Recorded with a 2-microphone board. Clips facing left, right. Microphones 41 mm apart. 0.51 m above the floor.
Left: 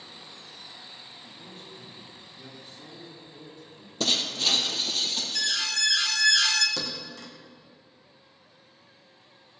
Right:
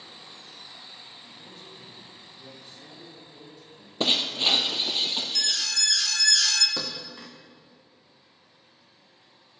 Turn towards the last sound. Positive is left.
turn(degrees=-20)  # may be behind; listen again after turning